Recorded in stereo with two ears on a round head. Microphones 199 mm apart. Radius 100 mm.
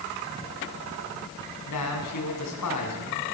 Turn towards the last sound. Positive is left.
turn(degrees=85)